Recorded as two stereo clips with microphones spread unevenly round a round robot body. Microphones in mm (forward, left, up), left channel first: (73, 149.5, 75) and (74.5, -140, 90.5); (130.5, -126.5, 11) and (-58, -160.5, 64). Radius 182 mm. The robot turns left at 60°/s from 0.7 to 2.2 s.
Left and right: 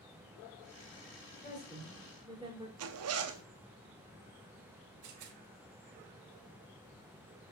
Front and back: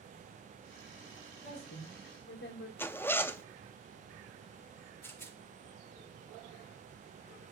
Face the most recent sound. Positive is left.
turn(degrees=-65)